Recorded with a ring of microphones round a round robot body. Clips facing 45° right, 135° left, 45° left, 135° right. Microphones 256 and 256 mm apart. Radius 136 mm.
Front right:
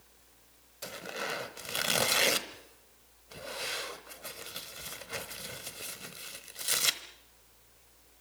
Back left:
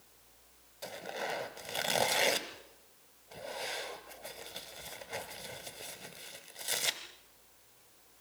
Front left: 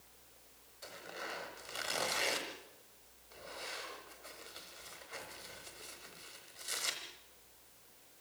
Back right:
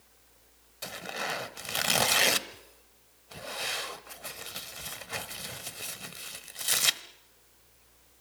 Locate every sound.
0.8 s tearing paper: 120° right, 1.1 m